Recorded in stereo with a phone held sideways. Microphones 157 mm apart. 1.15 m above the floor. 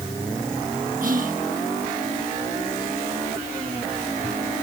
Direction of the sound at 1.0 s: 60° right (ahead or behind).